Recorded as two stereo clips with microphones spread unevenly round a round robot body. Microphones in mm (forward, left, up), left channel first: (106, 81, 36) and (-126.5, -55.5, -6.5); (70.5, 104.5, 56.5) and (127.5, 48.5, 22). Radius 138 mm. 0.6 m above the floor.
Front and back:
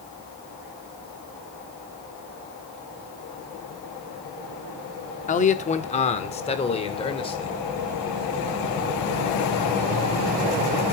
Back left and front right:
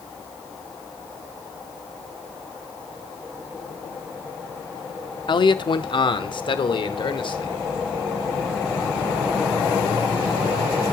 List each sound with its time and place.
5.3 s a man speaking: 95° left, 1.4 m; by 7.6 s 105° left, 2.5 m